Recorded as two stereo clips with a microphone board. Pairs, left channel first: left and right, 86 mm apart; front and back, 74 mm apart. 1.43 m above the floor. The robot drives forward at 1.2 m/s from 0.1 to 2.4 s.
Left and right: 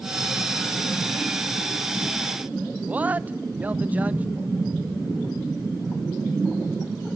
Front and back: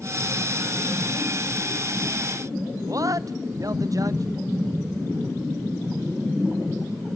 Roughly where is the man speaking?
Behind right.